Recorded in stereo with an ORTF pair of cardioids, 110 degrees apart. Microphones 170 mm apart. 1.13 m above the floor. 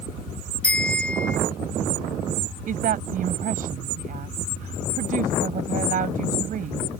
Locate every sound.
0.6 s a bicycle bell: 5° left
2.7 s a woman speaking: 55° right